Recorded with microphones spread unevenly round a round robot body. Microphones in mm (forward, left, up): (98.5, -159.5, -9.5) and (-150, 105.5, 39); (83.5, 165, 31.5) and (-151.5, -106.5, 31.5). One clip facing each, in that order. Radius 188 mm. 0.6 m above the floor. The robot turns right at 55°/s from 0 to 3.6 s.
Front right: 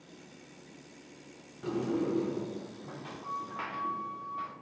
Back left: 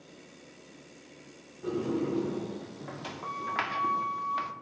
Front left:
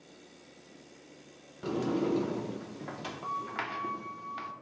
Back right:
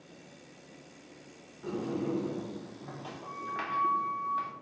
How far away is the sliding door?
About 0.6 m.